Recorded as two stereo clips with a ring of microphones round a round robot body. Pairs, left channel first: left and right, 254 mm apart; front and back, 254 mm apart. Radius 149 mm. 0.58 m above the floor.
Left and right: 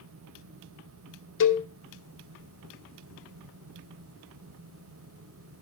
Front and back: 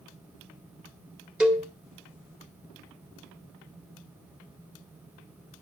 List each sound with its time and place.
1.4 s a cowbell: 95° left, 1.5 m